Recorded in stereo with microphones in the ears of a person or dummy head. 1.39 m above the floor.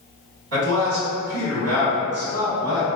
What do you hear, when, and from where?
0.5 s a man speaking: 80° right, 1.9 m